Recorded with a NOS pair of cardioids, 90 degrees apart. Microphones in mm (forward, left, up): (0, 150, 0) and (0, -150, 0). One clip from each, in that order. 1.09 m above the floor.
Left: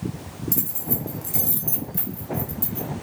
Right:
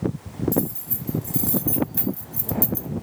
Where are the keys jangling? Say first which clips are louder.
Right 5 dB; 40° left, 1.3 m; by 2.9 s 75° right, 0.7 m.